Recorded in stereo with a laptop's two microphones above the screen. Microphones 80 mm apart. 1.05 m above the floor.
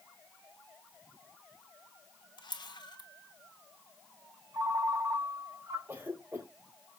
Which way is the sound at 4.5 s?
40° right (ahead or behind).